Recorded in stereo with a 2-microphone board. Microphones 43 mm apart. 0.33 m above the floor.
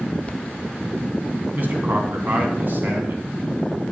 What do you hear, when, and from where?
1.5 s a man speaking: 50° right (ahead or behind), 2.5 m